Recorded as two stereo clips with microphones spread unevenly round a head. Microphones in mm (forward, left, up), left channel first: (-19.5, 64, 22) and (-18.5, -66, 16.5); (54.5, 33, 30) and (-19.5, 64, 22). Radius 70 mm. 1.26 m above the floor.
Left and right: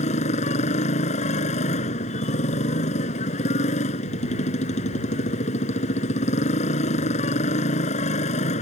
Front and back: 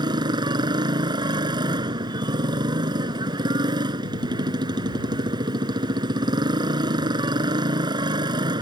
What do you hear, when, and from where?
0.0 s a motorcycle: 125° left